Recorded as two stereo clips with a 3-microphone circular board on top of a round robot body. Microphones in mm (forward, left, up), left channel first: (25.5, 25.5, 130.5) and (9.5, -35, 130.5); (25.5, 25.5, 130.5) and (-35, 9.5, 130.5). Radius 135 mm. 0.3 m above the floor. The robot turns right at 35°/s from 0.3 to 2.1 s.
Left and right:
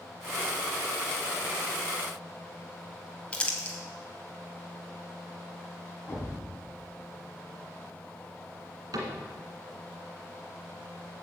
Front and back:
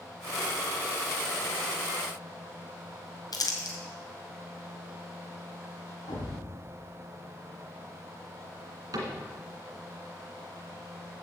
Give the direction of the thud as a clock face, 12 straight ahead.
12 o'clock.